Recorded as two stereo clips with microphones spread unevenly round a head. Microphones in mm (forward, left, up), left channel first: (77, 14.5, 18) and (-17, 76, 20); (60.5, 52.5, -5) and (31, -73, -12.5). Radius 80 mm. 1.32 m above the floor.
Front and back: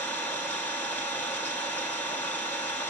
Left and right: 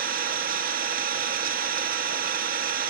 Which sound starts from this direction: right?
An engine running, at 0.0 s.